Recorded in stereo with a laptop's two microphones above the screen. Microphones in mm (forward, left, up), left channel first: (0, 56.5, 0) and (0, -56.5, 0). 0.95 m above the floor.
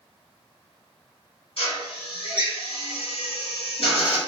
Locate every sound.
1.6 s a drill: 60° left (ahead or behind), 1.7 m